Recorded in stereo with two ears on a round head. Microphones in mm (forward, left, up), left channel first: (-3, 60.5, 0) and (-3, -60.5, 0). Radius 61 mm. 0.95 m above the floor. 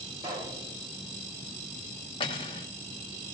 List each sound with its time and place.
0.2 s a pop: 30° right (ahead or behind), 3 m
2.2 s cutlery clinking: 40° left (ahead or behind), 1.1 m